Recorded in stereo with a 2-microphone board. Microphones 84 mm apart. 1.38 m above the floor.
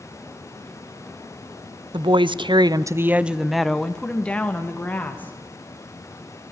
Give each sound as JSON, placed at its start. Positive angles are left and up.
{"t": 1.9, "sound": "a woman speaking", "side_deg": -70, "distance_m": 0.7}